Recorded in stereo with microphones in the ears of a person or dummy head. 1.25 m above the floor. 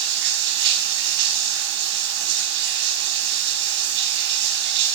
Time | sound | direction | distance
0.0 | running water | 60° right (ahead or behind) | 4 m